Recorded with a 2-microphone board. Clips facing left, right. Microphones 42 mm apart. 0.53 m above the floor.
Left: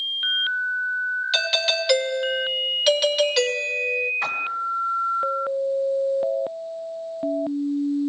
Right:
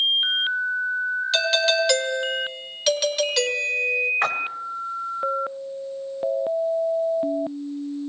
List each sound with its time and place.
1.3 s a doorbell: 10° left (ahead or behind), 2.5 m
4.2 s a splash: 55° right (ahead or behind), 2.5 m